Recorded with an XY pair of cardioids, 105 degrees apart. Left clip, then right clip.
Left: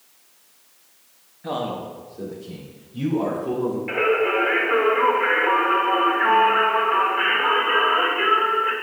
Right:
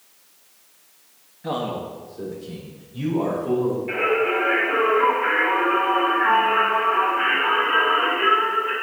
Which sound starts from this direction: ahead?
A man speaking, at 1.4 s.